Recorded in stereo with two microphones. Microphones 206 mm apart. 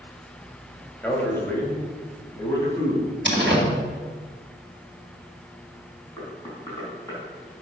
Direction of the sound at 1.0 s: 10° left (ahead or behind).